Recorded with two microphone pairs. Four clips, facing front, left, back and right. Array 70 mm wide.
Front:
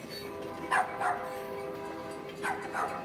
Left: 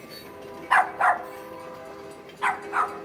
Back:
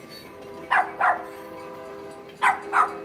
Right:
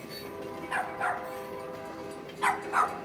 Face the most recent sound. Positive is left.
turn(degrees=-175)